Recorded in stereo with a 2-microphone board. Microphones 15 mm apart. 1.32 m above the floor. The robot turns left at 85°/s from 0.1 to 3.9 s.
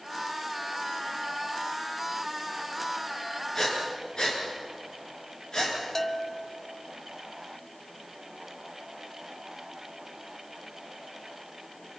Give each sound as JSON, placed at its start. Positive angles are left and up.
{"t": 3.5, "sound": "breathing", "side_deg": 35, "distance_m": 8.0}
{"t": 6.0, "sound": "a bell", "side_deg": 25, "distance_m": 0.8}